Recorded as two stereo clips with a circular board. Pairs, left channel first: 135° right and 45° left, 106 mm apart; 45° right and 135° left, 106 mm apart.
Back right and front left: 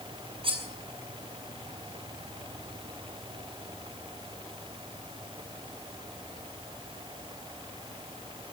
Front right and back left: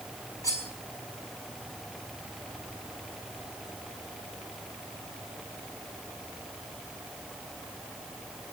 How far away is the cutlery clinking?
About 5.5 m.